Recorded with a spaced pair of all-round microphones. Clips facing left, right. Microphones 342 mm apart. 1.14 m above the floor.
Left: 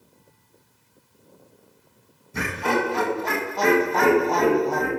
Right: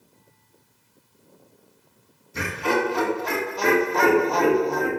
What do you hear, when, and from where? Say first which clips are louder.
2.3 s laughter: even; 65° left (ahead or behind), 1.8 m